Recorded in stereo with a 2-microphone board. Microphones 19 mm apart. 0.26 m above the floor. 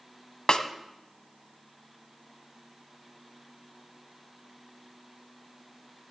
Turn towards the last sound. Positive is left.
turn(degrees=50)  # may be behind; listen again after turning